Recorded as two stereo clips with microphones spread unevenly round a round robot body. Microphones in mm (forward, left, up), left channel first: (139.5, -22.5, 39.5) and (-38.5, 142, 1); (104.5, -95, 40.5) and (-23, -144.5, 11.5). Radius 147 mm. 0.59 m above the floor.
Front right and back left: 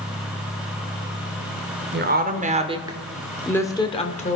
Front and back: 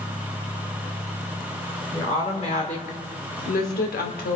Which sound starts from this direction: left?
A woman speaking, at 1.9 s.